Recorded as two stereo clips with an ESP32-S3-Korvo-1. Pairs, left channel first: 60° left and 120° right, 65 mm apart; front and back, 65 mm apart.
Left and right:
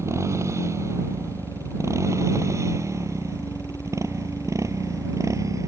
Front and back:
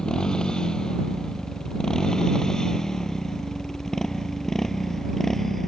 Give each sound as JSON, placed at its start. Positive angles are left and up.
{"t": 0.0, "sound": "a motorcycle", "azimuth_deg": -80}